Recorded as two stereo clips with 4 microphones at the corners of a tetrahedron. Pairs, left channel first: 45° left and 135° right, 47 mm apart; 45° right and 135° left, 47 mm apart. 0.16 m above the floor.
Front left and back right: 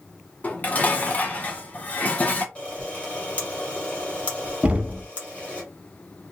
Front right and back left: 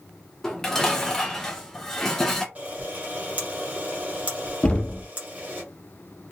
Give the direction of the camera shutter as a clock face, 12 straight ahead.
9 o'clock.